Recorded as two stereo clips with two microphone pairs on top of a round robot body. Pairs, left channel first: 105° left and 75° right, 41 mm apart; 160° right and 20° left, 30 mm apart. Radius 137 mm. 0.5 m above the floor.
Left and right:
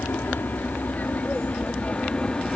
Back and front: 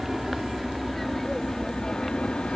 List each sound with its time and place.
0.0 s an aircraft: 95° left; by 2.6 s 170° left